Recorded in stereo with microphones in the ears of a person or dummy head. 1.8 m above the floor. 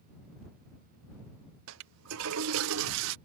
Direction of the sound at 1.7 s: 85° right.